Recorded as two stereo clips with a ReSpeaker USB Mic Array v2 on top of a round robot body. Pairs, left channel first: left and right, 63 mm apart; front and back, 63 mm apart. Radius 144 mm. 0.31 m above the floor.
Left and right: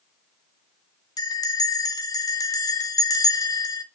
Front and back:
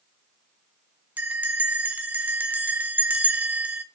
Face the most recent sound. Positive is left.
turn(degrees=115)